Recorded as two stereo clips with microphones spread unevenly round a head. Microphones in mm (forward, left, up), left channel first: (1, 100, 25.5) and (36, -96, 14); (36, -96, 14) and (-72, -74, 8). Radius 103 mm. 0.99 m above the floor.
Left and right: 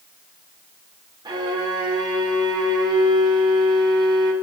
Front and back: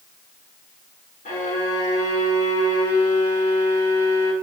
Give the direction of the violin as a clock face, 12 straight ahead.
12 o'clock.